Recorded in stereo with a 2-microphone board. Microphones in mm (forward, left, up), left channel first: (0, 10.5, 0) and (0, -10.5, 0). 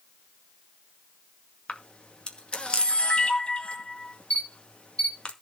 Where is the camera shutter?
60° left (ahead or behind), 2 m.